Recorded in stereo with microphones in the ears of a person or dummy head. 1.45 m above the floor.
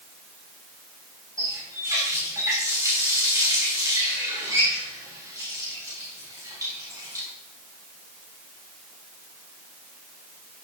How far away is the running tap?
About 6.5 m.